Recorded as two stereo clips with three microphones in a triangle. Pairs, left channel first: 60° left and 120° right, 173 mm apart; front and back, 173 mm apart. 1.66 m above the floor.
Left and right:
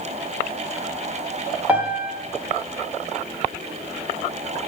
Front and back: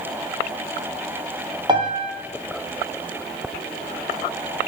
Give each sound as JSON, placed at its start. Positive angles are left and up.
{"t": 1.7, "sound": "a piano", "azimuth_deg": 170, "distance_m": 1.2}